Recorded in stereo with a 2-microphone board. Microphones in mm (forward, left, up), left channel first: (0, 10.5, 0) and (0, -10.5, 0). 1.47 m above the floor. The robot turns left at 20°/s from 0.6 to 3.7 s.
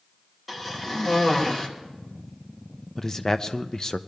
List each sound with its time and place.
0.5 s a cough: 10° left (ahead or behind), 2.5 m; by 1.7 s 30° left (ahead or behind), 2.5 m
3.0 s a man speaking: 25° left (ahead or behind), 0.6 m; by 4.0 s 40° left (ahead or behind), 0.6 m